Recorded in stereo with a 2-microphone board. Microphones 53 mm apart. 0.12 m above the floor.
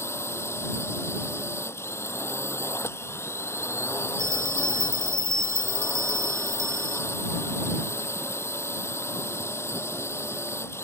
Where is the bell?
70° right (ahead or behind).